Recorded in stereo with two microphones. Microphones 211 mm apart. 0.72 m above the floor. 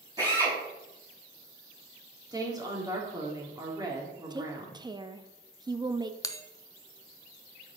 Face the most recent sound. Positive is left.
turn(degrees=15)  # may be behind; listen again after turning